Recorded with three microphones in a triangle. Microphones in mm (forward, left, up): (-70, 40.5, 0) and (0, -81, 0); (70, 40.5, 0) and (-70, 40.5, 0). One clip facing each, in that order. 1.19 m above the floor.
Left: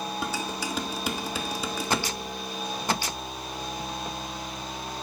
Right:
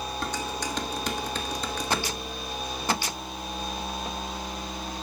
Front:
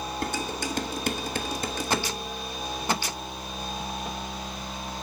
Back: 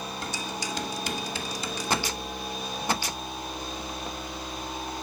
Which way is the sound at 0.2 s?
35° left.